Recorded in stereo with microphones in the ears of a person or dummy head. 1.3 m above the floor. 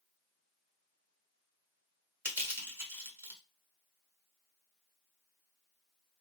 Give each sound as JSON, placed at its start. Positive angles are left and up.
{"t": 2.2, "sound": "crushing", "side_deg": -10, "distance_m": 1.3}